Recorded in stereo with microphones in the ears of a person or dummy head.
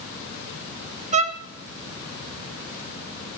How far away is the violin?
About 0.8 m.